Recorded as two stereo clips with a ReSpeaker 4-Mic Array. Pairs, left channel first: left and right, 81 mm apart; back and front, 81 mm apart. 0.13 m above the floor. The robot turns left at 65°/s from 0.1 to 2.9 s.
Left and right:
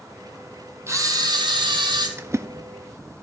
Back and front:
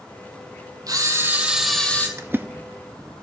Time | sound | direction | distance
0.9 | a camera shutter | 35° right | 1.4 m
2.2 | a splash | 40° right | 0.5 m